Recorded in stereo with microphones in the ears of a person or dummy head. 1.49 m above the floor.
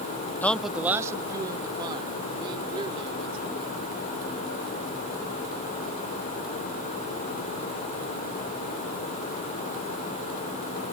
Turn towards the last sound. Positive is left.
turn(degrees=-30)  # may be behind; listen again after turning